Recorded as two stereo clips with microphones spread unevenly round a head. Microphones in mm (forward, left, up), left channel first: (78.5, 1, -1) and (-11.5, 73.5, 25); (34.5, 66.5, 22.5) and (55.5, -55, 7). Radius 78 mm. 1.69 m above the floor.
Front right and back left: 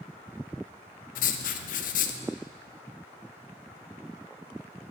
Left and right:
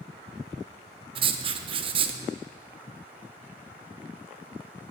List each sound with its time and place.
1.1 s writing: 30° right, 0.5 m